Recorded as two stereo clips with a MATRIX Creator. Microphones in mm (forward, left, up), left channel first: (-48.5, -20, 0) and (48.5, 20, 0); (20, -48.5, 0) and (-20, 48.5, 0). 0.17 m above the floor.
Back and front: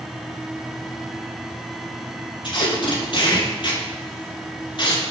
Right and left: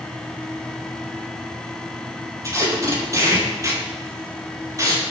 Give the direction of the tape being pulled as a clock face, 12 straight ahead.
6 o'clock.